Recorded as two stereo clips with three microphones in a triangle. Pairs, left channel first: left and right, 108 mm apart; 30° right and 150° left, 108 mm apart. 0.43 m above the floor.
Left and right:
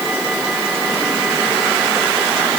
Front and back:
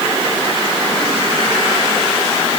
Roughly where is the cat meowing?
I don't hear a cat meowing.